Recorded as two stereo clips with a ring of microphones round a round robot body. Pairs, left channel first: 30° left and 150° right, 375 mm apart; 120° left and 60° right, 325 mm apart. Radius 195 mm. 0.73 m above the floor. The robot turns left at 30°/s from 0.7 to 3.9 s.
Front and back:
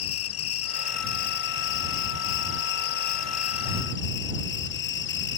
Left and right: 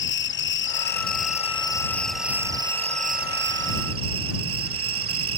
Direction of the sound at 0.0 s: 75° left.